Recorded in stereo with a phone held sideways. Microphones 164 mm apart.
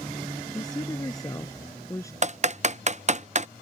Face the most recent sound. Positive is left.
turn(degrees=-45)  # may be behind; listen again after turning